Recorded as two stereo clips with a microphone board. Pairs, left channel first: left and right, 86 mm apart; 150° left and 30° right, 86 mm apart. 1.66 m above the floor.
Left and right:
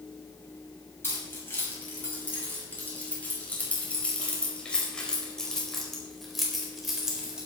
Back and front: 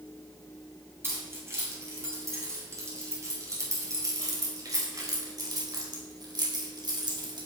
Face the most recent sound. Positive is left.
turn(degrees=-10)